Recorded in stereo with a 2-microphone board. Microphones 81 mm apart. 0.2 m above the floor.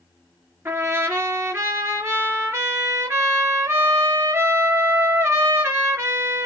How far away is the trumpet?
About 3 m.